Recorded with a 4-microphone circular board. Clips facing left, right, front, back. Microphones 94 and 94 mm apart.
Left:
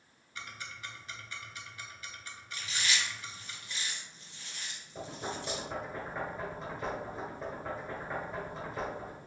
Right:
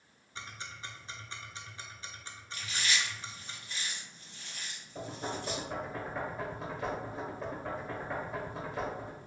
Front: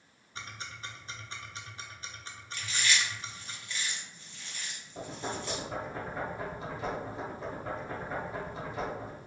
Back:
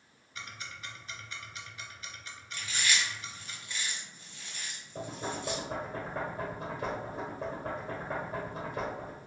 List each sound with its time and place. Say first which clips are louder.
0.3 s ticking: even, front 1 dB; 40° right, 0.6 m
2.5 s chewing: even, front 1 dB; 125° right, 2.0 m
5.0 s knocking: right 1 dB, even; 175° right, 1.7 m